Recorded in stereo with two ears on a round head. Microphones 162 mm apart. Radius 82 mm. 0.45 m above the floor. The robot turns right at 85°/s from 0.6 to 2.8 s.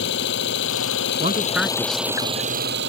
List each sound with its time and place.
0.0 s an engine running: 65° left; by 2.9 s 110° right
1.2 s a man speaking: 35° right; by 2.5 s 75° left